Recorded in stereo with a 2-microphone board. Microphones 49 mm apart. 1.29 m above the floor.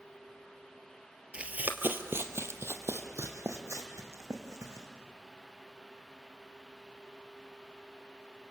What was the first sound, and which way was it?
Running footsteps, 20° right (ahead or behind).